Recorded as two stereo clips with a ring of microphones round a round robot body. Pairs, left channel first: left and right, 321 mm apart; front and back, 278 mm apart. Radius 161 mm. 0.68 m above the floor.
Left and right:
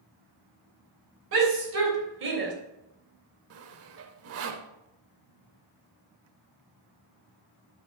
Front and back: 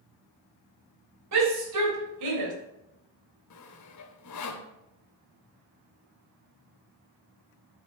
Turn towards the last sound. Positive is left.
turn(degrees=-40)